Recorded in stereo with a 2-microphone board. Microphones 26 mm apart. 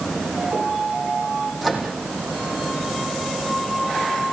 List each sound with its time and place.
1.6 s a microwave: 5° right (ahead or behind), 6 m